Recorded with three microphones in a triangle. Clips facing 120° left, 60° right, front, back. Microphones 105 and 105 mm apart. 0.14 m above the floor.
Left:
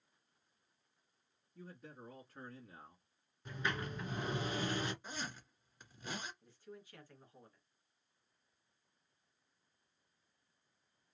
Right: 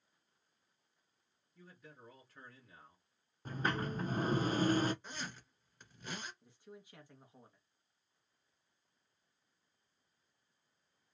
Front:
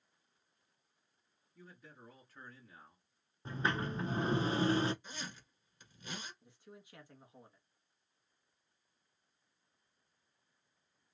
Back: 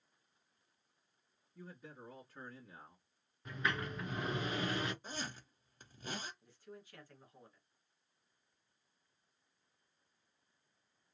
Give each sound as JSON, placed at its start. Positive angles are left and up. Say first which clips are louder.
{"t": 1.6, "sound": "a man speaking", "louder": "left 5 dB, back 4 dB", "azimuth_deg": 125, "distance_m": 1.4}
{"t": 3.5, "sound": "a sliding door", "louder": "right 4 dB, front 3 dB", "azimuth_deg": -40, "distance_m": 0.5}
{"t": 5.0, "sound": "a zipper", "louder": "left 1 dB, back 3 dB", "azimuth_deg": -160, "distance_m": 1.6}
{"t": 6.4, "sound": "a man speaking", "louder": "left 1 dB, back 2 dB", "azimuth_deg": -30, "distance_m": 1.3}